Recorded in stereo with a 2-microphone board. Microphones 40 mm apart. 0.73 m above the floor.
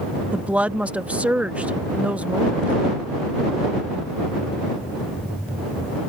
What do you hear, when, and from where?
0.3 s a woman speaking: 35° right (ahead or behind)